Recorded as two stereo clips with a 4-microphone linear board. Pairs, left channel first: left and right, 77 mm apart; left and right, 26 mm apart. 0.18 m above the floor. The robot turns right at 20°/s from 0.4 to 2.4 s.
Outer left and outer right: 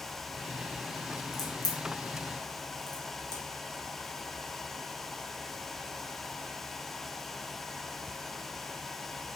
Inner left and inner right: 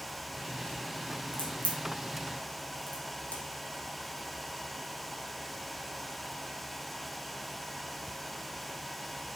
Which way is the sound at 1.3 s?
50° left (ahead or behind).